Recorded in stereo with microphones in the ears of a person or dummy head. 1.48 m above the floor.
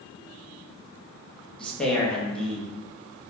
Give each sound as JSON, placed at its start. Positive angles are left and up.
{"t": 1.6, "sound": "a man speaking", "side_deg": 5, "distance_m": 1.3}